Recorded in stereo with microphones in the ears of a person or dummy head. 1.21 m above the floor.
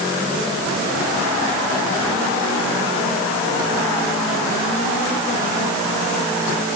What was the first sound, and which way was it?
Only background noise.